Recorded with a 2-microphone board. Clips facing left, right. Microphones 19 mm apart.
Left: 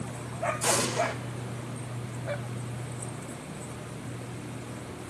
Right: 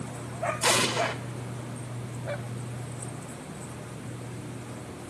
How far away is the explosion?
About 2.0 m.